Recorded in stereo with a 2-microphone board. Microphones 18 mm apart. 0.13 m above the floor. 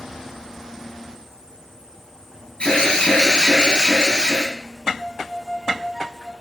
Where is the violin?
5° right (ahead or behind), 1.0 m.